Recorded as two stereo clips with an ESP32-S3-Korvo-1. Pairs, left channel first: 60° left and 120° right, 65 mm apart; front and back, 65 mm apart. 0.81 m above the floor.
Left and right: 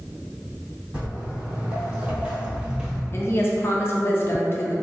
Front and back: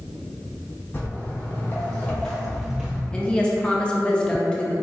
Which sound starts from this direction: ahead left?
A woman speaking, at 3.1 s.